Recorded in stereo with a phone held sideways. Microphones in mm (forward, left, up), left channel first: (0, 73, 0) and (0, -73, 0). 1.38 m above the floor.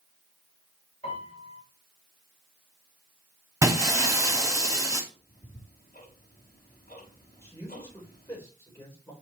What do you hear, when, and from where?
1.0 s a piano: 45° left (ahead or behind), 3.5 m
3.6 s breaking glass: 20° right (ahead or behind), 1.4 m
5.1 s ticking: 80° left, 4 m
7.4 s a man speaking: 25° left (ahead or behind), 4 m